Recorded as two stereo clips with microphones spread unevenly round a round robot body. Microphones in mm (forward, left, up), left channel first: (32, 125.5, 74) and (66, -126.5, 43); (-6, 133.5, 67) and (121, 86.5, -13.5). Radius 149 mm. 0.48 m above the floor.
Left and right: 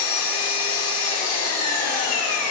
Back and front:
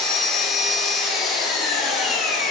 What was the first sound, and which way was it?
An engine running, 65° left.